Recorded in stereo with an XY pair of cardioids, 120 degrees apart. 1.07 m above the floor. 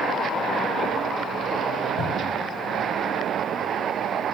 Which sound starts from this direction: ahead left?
A cupboard door, at 2.0 s.